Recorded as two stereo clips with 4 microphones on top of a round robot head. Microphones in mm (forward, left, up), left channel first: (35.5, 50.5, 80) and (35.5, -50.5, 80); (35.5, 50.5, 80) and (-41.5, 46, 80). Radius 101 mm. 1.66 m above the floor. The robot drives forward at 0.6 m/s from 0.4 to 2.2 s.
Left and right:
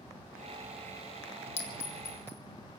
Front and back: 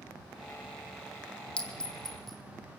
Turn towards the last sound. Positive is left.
turn(degrees=90)